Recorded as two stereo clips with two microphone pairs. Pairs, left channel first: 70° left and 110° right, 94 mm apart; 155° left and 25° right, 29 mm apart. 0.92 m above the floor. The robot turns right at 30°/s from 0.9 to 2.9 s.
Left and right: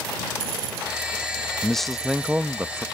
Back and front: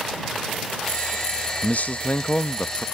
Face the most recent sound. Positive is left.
turn(degrees=-170)